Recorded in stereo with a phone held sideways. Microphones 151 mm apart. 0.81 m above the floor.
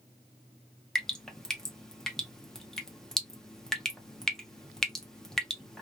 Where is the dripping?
5° left (ahead or behind), 0.6 m.